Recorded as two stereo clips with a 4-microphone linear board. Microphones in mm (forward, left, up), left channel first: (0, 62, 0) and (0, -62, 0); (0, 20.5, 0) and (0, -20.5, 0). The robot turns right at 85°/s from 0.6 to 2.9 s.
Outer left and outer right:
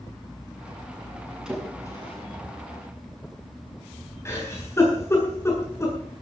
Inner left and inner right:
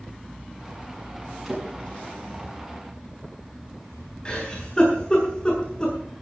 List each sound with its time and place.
1.4 s a splash: 10° right (ahead or behind), 7.5 m; by 2.2 s 50° left (ahead or behind), 7.5 m
4.2 s a giggle: 20° left (ahead or behind), 8 m